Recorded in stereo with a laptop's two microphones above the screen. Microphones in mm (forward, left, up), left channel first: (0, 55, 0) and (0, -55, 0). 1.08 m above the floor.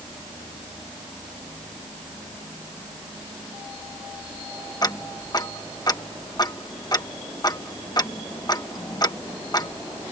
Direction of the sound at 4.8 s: 35° left (ahead or behind).